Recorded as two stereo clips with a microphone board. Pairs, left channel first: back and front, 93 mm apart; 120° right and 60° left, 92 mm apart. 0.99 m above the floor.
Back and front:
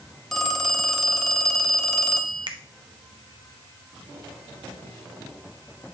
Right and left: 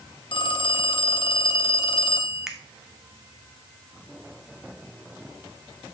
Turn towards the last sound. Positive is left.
turn(degrees=-25)